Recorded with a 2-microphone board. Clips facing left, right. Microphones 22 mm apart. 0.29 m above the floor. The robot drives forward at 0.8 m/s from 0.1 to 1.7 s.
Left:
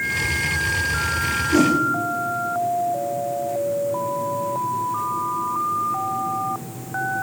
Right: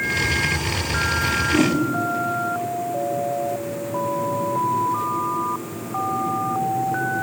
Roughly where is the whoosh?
Left.